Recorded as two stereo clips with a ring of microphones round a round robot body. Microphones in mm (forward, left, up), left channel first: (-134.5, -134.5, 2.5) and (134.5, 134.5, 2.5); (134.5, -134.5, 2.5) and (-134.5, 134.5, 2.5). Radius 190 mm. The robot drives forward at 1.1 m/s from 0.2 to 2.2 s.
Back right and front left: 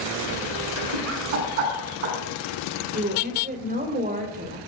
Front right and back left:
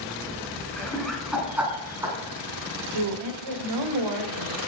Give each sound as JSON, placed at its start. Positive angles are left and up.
{"t": 0.8, "sound": "laughter", "azimuth_deg": 45, "distance_m": 7.5}
{"t": 2.9, "sound": "a woman speaking", "azimuth_deg": 115, "distance_m": 2.5}